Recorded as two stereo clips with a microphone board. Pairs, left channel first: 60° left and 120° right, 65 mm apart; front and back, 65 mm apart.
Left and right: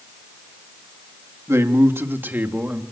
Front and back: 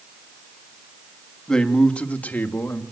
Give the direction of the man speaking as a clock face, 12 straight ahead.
3 o'clock.